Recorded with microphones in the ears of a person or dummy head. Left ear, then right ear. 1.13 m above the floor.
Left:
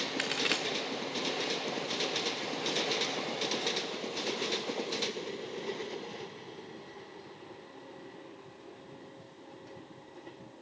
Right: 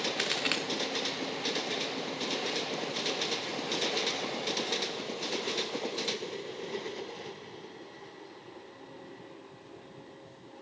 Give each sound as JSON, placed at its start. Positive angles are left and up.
{"t": 0.2, "sound": "a crack", "side_deg": 5, "distance_m": 0.8}